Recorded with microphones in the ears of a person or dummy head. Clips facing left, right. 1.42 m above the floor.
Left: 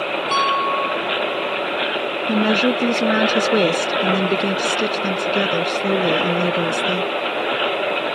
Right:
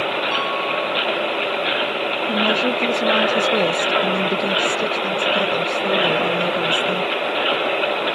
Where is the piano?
70° left (ahead or behind).